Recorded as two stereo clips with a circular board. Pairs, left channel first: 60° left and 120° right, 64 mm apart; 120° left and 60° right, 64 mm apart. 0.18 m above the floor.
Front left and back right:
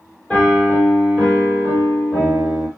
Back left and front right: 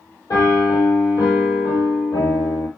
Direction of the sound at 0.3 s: 130° left.